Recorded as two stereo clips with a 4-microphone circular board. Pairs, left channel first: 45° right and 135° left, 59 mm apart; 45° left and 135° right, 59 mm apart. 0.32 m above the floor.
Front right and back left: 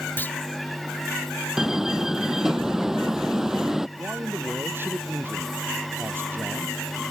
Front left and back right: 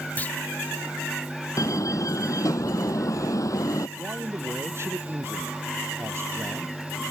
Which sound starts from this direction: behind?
A man speaking, at 4.0 s.